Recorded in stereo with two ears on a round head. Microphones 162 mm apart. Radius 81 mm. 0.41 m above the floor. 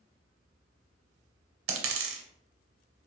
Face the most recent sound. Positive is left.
turn(degrees=-85)